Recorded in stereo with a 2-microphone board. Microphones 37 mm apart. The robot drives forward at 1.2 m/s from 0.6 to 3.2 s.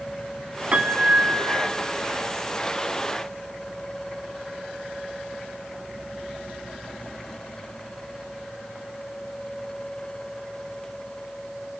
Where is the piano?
35° right (ahead or behind), 1.1 m; by 1.7 s 60° right (ahead or behind), 0.8 m.